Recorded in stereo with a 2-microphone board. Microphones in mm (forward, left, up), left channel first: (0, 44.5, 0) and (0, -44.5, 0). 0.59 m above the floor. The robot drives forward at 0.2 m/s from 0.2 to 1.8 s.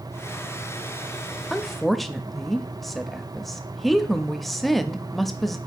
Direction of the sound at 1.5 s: Centre (ahead or behind).